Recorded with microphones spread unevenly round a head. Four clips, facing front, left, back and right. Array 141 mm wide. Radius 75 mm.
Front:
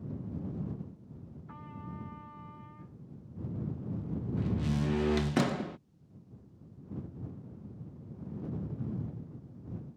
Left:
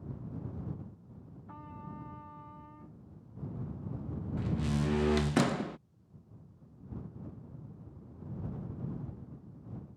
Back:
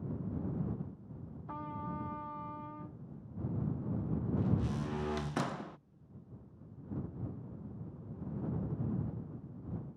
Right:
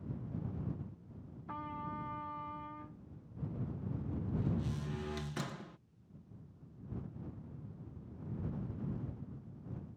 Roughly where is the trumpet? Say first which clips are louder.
Right 5 dB, back 6 dB; behind.